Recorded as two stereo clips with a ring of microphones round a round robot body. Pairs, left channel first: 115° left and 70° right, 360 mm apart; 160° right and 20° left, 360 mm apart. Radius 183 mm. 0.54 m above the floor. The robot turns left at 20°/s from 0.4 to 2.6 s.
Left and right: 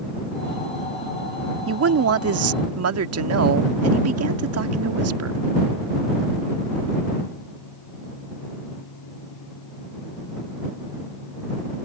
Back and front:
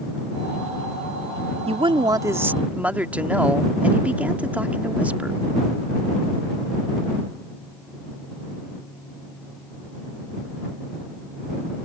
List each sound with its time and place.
1.7 s a woman speaking: 45° right; by 5.4 s 60° right